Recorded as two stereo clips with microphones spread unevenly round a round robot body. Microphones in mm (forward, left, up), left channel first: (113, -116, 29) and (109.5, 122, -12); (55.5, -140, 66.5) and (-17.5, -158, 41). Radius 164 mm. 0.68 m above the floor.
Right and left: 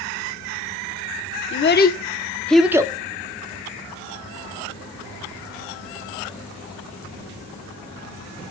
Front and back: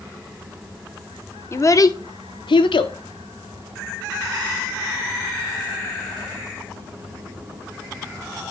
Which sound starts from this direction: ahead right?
A child speaking, at 1.5 s.